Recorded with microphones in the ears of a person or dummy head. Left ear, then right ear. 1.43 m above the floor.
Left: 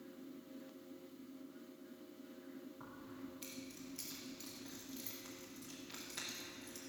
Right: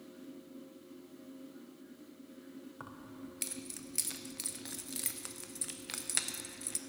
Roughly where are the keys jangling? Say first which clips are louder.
Right 6 dB; right.